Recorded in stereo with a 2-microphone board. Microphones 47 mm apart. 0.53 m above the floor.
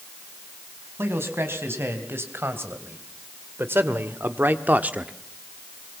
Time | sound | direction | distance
1.0 | a man speaking | 60° right (ahead or behind) | 4 m